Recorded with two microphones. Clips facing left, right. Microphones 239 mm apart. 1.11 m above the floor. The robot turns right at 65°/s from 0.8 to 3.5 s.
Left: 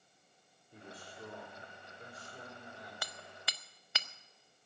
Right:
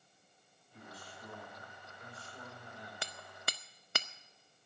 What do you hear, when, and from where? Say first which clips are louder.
0.7 s a man speaking: left 2 dB; 60° left, 5 m; by 2.9 s 165° right, 5 m
3.0 s hammering: right 2 dB; 25° right (ahead or behind), 0.6 m; by 4.1 s 55° right (ahead or behind), 0.6 m